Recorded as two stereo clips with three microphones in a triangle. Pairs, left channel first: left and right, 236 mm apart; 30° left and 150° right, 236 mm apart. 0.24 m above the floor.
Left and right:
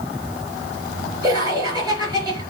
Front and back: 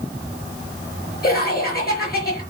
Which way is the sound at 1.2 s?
15° right.